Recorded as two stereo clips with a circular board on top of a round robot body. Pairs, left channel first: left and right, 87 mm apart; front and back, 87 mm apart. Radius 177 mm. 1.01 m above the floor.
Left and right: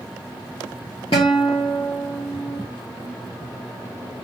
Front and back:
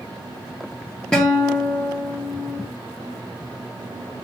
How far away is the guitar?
About 0.6 m.